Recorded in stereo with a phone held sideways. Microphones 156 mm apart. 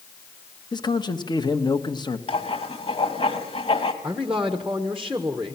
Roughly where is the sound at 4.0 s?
Centre.